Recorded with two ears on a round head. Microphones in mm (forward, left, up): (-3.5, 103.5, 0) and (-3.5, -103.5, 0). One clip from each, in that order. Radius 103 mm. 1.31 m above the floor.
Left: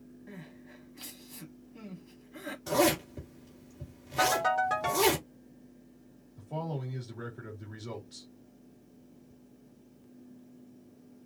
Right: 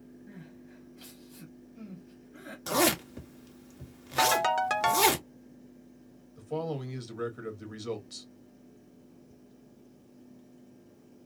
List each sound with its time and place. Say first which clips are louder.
0.3 s crying: left 5 dB; 45° left (ahead or behind), 1.4 m
2.7 s a zipper: even; 45° right (ahead or behind), 1.6 m
4.2 s a ringtone: right 1 dB; 65° right (ahead or behind), 1.0 m
6.4 s a man speaking: right 4 dB; 55° right (ahead or behind), 1.8 m